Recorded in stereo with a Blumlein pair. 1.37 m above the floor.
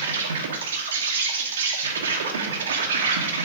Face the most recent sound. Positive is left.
turn(degrees=-65)